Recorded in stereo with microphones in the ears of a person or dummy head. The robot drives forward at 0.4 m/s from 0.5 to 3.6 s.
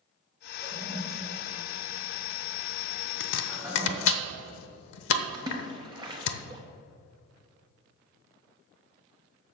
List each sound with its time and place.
0.6 s a toilet flushing: 10° right (ahead or behind), 1.9 m; by 4.2 s 5° right (ahead or behind), 3 m
3.2 s chopping: 65° left (ahead or behind), 0.9 m; by 6.3 s 75° left (ahead or behind), 0.8 m
5.3 s a splash: 20° right (ahead or behind), 0.8 m